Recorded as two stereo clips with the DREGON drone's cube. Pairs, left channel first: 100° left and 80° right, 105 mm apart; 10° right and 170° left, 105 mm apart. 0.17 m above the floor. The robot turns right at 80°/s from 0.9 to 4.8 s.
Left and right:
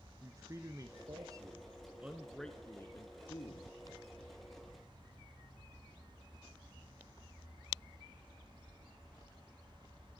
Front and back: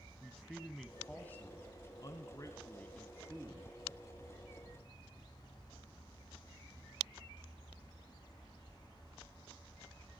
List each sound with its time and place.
0.2 s a man speaking: 105° right, 1.4 m; by 3.7 s 120° left, 1.4 m